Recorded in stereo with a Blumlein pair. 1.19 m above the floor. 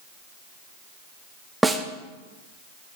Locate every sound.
1.6 s a snare drum: 5° right, 0.8 m